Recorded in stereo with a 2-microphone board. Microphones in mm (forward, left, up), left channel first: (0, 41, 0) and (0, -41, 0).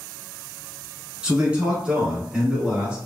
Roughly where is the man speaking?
Centre.